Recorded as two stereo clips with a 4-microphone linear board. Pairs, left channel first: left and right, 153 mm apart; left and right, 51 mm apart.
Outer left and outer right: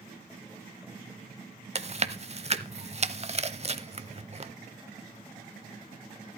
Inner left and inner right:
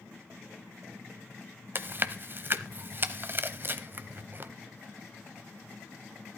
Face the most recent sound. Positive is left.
turn(degrees=-40)  # may be behind; listen again after turning